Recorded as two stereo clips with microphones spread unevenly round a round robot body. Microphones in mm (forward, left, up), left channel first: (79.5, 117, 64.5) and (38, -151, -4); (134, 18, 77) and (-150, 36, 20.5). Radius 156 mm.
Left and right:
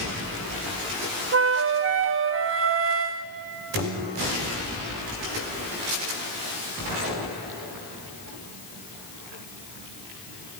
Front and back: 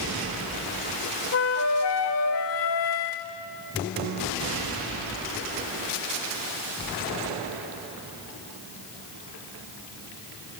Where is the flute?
45° right, 0.7 m.